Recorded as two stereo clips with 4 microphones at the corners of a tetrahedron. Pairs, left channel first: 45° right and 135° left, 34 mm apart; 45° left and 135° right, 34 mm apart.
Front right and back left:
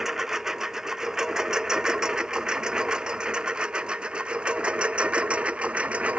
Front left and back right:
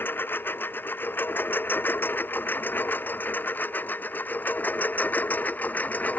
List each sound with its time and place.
0.0 s a lawn mower: 55° left; by 6.2 s 85° left